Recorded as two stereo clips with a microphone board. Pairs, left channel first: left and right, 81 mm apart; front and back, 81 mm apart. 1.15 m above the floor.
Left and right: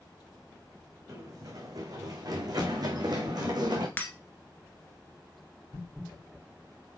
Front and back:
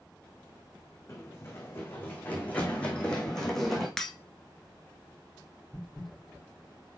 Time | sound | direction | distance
1.1 | running footsteps | 55° right | 2.5 m
4.0 | breaking glass | 70° left | 1.2 m